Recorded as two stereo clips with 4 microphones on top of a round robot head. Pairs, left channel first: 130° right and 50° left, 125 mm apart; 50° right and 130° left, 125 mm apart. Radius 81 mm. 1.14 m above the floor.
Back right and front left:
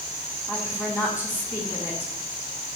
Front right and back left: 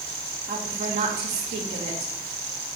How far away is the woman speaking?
About 2 m.